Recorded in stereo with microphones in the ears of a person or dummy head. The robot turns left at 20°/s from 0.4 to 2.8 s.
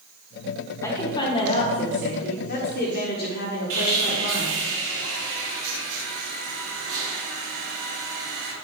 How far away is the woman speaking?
About 1.4 m.